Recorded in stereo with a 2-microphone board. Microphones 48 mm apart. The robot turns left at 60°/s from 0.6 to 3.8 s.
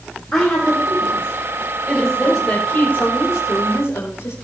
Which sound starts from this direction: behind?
A woman speaking, at 1.9 s.